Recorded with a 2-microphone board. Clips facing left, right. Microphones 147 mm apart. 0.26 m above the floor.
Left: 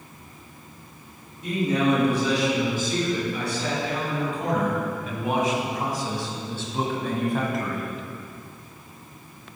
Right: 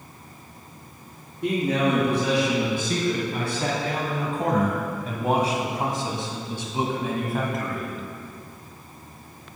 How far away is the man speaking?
About 3 m.